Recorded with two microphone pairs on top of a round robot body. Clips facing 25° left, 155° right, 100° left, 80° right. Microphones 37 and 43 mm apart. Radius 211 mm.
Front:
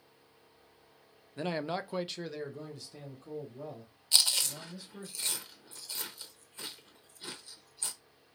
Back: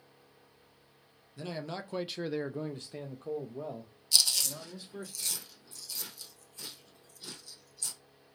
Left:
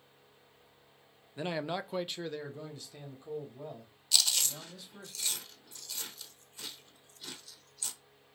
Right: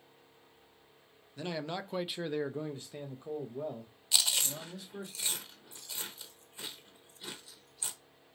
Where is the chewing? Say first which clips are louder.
Even, even; 15° right, 1.0 m.